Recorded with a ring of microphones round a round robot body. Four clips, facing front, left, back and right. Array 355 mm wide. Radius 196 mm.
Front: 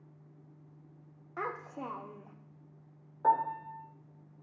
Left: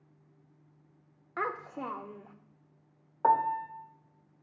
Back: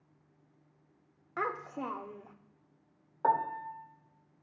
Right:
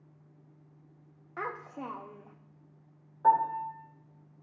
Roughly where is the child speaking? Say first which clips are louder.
Left 3 dB, back 3 dB; behind left.